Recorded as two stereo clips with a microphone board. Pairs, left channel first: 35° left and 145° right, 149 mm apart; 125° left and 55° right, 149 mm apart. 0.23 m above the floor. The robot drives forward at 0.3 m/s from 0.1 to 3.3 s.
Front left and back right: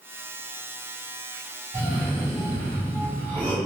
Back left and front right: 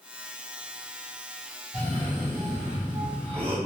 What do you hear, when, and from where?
1.7 s a cough: 75° right, 2.0 m; by 3.6 s 95° right, 2.0 m